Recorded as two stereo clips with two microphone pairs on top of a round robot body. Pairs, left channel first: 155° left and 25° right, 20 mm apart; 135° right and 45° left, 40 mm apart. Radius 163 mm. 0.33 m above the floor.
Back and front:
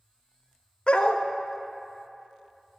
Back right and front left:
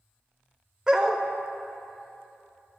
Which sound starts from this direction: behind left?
A dog barking, at 0.9 s.